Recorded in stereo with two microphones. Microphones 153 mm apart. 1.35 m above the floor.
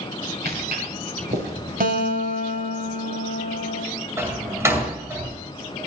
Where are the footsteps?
75° right (ahead or behind), 6.5 m; by 2.1 s 70° right (ahead or behind), 6 m.